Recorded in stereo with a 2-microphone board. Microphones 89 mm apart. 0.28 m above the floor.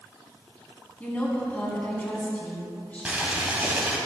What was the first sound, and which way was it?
A woman speaking, 20° left (ahead or behind).